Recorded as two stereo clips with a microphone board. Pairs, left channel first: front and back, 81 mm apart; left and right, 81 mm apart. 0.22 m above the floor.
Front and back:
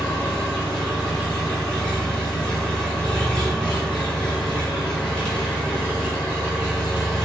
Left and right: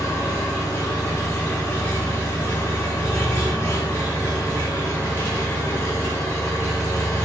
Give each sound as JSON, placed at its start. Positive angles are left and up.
{"t": 0.0, "sound": "an engine running", "azimuth_deg": 70, "distance_m": 1.5}